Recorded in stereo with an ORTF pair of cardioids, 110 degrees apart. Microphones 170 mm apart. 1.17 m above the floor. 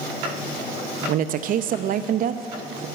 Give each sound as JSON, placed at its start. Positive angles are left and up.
{"t": 1.1, "sound": "a woman speaking", "azimuth_deg": -55, "distance_m": 0.5}